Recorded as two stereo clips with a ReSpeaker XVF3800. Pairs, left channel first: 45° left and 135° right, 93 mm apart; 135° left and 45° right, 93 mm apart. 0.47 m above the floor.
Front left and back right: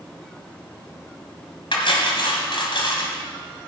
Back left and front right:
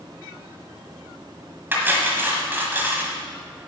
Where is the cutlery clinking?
20° left, 1.7 m.